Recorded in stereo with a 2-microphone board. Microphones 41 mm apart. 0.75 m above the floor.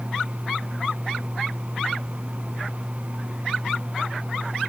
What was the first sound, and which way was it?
Only background noise.